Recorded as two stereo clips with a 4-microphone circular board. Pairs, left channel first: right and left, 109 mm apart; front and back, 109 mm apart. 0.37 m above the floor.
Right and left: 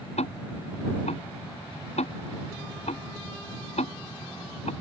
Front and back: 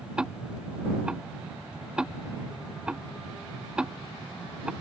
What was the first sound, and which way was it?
Ticking, 100° right.